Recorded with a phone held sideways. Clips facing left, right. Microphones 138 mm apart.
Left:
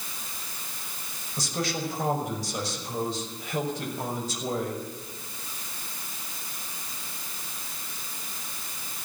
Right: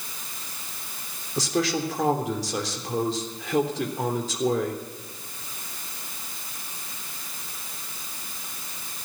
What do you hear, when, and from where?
1.4 s a man speaking: 75° right (ahead or behind), 3.5 m